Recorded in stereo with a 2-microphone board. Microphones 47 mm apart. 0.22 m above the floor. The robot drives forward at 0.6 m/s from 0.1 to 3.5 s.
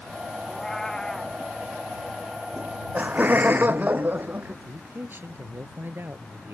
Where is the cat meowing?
10° left (ahead or behind).